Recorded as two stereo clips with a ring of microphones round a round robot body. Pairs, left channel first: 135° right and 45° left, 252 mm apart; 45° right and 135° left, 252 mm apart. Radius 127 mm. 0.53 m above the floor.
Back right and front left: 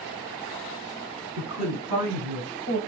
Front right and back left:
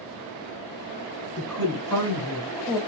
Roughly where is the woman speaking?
Ahead left.